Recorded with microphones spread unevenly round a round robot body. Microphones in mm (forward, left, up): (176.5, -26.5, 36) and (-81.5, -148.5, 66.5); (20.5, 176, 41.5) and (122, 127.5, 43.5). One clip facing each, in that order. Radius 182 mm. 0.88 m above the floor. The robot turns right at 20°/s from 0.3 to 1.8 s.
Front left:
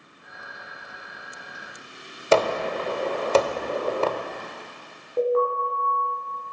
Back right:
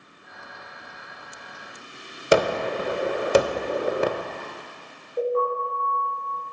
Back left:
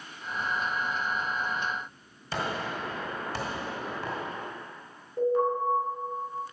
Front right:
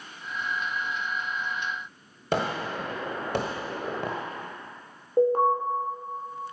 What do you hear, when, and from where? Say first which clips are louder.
2.3 s a gunshot: back right 1 dB, front right 4 dB; 85° right, 0.9 m
5.2 s an alarm: front left 2 dB, front right 4 dB; 20° left, 3.5 m